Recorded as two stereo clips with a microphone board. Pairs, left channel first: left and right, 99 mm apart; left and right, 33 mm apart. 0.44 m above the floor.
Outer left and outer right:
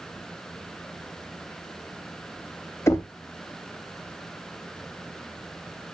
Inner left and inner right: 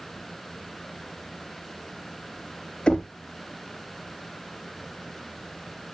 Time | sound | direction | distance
2.9 | knocking | 30° left (ahead or behind) | 0.9 m